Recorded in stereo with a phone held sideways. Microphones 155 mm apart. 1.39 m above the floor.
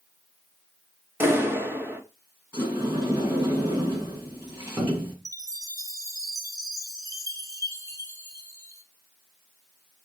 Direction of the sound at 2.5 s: 20° right (ahead or behind).